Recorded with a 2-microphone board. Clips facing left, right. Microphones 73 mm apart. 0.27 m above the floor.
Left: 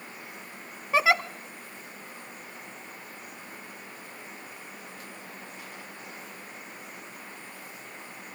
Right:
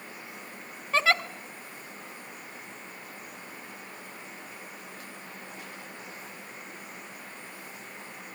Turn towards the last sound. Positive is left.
turn(degrees=15)  # may be behind; listen again after turning